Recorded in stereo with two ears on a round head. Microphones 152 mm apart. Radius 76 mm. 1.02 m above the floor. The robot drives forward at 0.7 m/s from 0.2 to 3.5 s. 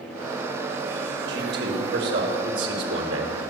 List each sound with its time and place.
1.3 s a man speaking: 65° right (ahead or behind), 4.5 m; by 3.5 s 80° right, 4 m